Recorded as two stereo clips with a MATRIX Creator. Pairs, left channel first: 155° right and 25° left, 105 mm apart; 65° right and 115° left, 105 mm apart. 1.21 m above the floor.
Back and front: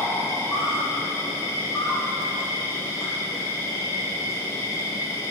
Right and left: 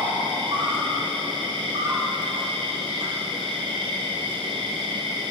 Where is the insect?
140° left, 3 m.